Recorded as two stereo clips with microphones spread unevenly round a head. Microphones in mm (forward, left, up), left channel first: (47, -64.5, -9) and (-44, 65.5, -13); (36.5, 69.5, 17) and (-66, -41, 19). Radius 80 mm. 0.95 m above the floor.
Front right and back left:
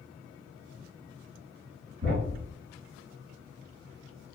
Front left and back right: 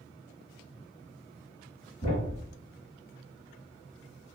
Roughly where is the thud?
Left.